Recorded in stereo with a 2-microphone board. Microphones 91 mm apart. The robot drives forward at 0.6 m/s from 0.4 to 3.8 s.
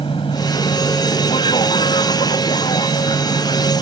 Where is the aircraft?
70° left (ahead or behind); by 3.8 s 65° left (ahead or behind).